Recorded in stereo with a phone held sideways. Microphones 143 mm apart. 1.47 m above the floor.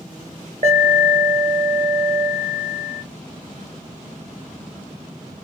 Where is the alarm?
50° right (ahead or behind), 0.9 m.